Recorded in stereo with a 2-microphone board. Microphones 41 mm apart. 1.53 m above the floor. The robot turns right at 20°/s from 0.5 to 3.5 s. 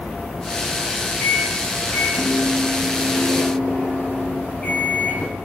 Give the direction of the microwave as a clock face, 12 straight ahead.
8 o'clock.